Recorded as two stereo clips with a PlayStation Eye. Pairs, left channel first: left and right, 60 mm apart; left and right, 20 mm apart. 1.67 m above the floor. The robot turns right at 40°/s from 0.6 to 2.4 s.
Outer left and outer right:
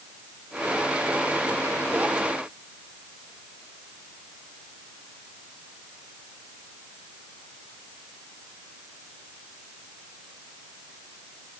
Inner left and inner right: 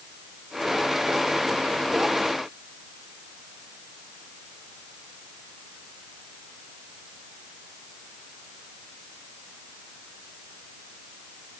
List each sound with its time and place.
Only background noise.